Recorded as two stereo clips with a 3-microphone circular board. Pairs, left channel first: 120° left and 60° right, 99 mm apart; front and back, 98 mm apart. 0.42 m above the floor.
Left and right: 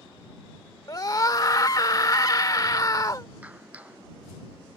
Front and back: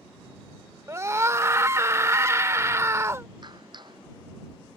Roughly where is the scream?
Behind left.